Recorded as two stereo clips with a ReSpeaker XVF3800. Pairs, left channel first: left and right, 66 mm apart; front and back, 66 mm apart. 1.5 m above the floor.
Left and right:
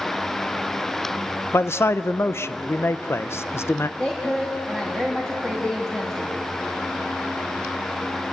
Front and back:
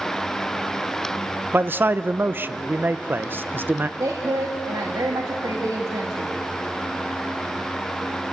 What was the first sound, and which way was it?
A man speaking, 130° left.